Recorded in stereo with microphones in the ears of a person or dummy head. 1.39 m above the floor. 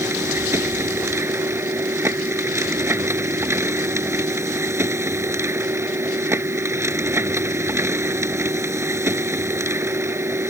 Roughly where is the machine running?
Centre.